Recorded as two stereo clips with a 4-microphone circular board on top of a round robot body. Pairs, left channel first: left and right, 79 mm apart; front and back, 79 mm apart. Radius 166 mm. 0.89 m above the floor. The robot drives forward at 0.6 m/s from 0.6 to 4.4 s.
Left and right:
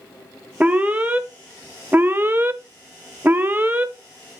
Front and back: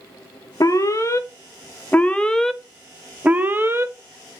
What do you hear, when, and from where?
0.6 s an alarm: 25° right, 1.8 m; by 3.9 s 145° right, 1.5 m